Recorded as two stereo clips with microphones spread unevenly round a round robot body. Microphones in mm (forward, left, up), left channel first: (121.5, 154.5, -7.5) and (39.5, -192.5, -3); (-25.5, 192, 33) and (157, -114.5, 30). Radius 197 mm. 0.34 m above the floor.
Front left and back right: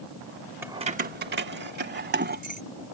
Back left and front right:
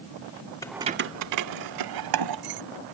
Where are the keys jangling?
175° right; by 2.6 s 40° right.